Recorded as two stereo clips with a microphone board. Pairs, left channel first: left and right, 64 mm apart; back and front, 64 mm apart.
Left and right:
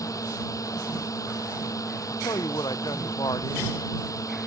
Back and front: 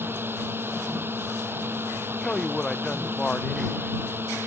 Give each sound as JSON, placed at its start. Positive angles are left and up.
{"t": 0.0, "sound": "a drone", "azimuth_deg": 55}
{"t": 2.1, "sound": "a man speaking", "azimuth_deg": 100}